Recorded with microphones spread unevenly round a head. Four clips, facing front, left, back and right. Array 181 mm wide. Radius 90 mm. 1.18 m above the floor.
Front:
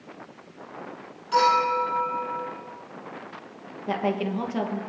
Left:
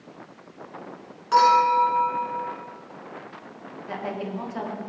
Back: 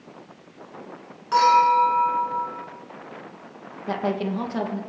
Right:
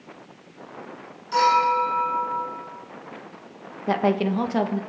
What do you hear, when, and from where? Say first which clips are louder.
1.3 s a clink: left 2 dB, back 5 dB; 120° left, 7.5 m
3.9 s a woman speaking: right 10 dB, back 1 dB; 90° right, 1.5 m